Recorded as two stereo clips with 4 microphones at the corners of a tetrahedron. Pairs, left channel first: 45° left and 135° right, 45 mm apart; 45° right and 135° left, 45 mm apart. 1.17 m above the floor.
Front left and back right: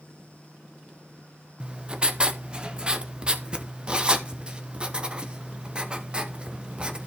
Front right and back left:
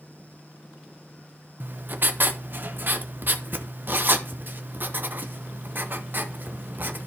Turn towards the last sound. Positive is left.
turn(degrees=160)